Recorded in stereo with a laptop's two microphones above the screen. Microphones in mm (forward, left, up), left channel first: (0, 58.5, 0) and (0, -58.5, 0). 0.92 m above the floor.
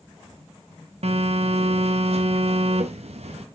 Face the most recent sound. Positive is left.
turn(degrees=-65)  # may be behind; listen again after turning